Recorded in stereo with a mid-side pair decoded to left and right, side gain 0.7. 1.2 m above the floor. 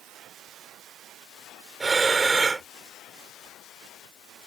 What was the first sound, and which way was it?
Breathing, 20° right.